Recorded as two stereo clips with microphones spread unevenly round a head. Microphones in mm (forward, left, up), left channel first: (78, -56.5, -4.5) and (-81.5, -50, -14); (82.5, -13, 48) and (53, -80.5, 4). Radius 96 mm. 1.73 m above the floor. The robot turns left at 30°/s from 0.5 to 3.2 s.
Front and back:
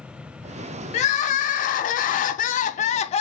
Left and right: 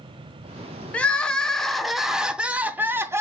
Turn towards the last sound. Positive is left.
turn(degrees=-35)